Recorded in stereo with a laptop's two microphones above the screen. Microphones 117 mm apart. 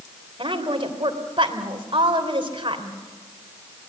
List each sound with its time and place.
0.4 s a woman speaking: 45° right (ahead or behind), 3.5 m